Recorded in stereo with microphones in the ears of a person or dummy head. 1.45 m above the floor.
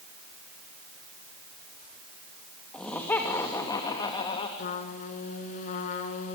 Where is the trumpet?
45° left (ahead or behind), 2.5 m.